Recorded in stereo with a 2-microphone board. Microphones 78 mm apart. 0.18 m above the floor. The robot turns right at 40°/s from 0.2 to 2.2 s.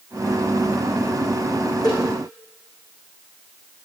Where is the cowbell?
55° left (ahead or behind), 7 m; by 2.0 s 50° left (ahead or behind), 7 m.